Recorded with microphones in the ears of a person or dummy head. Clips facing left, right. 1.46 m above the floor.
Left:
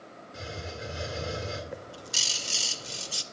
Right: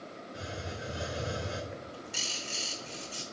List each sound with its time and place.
0.3 s a hiss: 30° left (ahead or behind), 2.0 m
1.7 s a bird: 45° left (ahead or behind), 0.6 m